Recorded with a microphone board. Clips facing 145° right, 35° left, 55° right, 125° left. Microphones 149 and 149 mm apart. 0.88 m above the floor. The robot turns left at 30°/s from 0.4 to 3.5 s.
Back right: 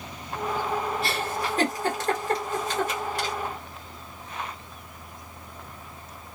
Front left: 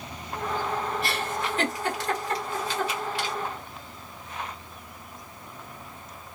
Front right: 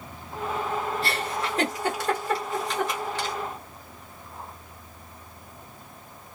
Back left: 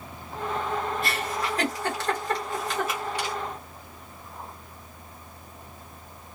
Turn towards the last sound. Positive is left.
turn(degrees=-170)